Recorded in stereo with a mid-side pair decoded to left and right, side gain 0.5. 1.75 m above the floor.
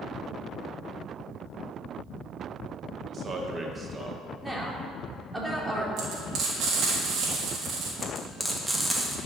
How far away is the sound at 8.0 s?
About 2.5 m.